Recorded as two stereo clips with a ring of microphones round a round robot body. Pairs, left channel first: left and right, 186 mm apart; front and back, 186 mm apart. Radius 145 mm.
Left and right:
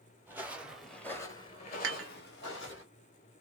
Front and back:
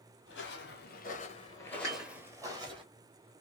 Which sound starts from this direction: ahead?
Footsteps, at 0.3 s.